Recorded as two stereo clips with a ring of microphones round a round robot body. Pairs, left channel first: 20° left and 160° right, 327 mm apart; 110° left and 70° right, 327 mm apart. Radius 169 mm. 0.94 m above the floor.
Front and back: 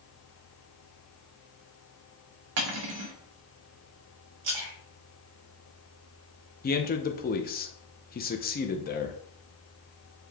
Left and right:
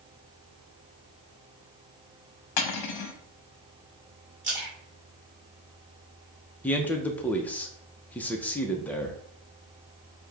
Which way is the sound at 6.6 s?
35° left.